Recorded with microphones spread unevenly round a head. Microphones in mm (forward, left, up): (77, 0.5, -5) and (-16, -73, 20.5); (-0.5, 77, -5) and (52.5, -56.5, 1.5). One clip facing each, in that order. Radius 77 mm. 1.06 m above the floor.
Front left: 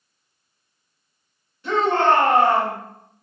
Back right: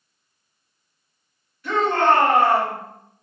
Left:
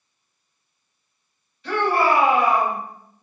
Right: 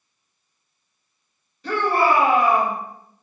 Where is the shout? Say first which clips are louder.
Even, even; 20° right, 1.8 m.